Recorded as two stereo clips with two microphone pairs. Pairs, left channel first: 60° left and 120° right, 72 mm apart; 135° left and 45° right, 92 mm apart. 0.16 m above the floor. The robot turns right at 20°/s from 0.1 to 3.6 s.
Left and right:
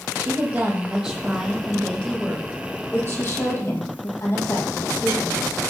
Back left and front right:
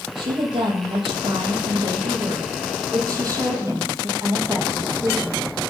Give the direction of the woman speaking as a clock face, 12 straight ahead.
2 o'clock.